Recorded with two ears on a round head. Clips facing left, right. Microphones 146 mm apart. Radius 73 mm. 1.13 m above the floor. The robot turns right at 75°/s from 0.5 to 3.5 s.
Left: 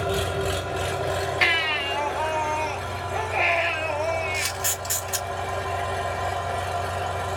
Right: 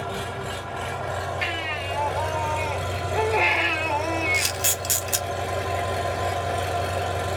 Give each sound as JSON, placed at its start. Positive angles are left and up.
{"t": 0.0, "sound": "an engine running", "azimuth_deg": 95, "distance_m": 1.3}
{"t": 1.4, "sound": "a baby crying", "azimuth_deg": 85, "distance_m": 1.9}
{"t": 4.3, "sound": "a camera shutter", "side_deg": -50, "distance_m": 1.2}